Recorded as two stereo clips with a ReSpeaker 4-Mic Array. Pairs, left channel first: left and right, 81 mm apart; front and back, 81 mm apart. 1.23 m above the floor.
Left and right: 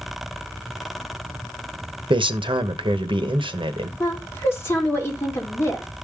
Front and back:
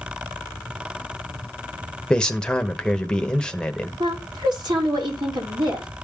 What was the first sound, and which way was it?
A man speaking, 80° right.